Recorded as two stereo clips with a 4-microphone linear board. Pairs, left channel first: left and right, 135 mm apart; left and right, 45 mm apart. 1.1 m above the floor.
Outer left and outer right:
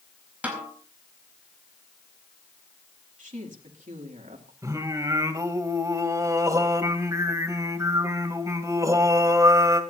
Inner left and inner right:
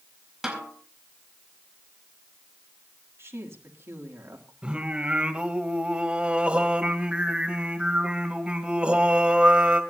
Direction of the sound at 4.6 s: 25° right (ahead or behind).